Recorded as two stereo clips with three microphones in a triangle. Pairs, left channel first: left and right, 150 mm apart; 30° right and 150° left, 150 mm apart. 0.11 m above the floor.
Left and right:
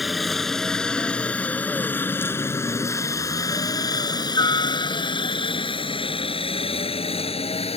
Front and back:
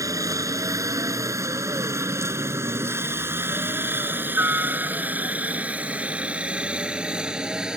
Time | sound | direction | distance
0.0 | a helicopter | straight behind | ?